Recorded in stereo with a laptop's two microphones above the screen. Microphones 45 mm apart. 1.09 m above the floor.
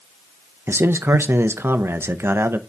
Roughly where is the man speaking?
Right.